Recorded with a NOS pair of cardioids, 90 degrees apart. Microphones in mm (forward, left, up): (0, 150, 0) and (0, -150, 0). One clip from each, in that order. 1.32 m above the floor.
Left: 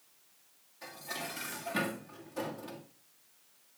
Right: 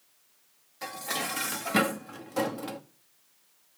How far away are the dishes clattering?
About 1.5 m.